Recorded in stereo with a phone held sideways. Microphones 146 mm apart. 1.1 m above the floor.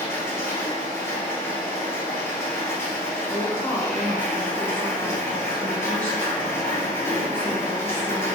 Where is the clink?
No clink in this recording.